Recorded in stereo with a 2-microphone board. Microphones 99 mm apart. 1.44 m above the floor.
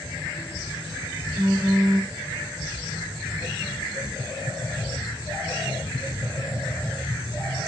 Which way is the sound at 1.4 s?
45° right (ahead or behind).